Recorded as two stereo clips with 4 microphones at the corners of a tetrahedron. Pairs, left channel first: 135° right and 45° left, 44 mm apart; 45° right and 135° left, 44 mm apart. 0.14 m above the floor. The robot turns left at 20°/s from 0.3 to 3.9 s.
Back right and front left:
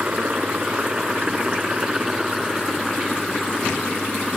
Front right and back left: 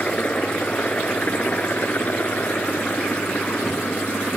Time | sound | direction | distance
0.0 | a helicopter | 5° right | ?